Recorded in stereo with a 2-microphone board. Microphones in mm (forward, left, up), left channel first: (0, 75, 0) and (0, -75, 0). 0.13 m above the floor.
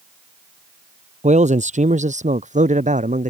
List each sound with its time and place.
1.2 s a man speaking: 50° right (ahead or behind); by 3.3 s 55° right (ahead or behind)